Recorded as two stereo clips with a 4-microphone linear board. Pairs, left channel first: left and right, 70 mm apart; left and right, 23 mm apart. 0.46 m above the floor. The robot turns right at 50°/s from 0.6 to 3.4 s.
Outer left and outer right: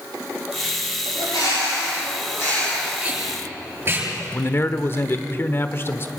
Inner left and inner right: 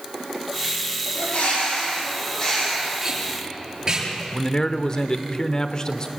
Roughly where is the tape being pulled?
Centre.